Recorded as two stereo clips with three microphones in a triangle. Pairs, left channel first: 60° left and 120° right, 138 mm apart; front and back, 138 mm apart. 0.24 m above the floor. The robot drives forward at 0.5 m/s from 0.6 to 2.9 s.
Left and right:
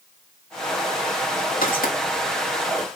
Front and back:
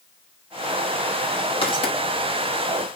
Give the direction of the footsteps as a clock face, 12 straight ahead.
10 o'clock.